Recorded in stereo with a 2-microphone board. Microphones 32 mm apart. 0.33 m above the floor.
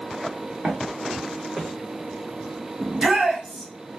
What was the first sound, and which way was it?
Footsteps, 80° right.